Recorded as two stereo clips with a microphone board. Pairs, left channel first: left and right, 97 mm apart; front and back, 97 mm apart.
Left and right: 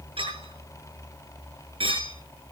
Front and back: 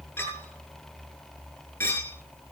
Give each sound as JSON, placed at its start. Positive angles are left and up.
{"t": 0.2, "sound": "a clink", "azimuth_deg": -65, "distance_m": 8.0}